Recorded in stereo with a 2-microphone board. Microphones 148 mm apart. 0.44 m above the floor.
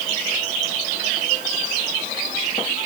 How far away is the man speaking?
I don't hear a man speaking.